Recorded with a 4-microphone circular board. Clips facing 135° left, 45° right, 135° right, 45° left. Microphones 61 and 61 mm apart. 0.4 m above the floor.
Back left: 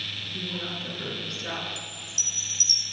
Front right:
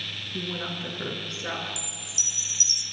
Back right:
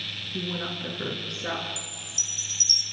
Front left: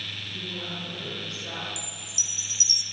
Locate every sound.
0.3 s a woman speaking: 95° right, 6 m; by 1.7 s 115° right, 7 m
1.8 s a chime: 115° right, 1.3 m